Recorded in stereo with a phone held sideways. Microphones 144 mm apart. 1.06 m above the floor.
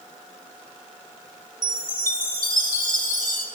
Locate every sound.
1.6 s a chime: 75° right (ahead or behind), 3 m